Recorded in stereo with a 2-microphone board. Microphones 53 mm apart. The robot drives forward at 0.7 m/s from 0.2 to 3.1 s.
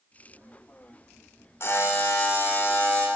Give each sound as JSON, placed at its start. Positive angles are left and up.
{"t": 1.6, "sound": "a buzzer", "side_deg": 50, "distance_m": 2.0}